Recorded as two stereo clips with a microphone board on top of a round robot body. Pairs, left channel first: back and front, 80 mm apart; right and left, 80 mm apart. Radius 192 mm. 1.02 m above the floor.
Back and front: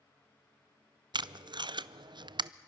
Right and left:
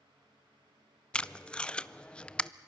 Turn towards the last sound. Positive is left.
turn(degrees=-10)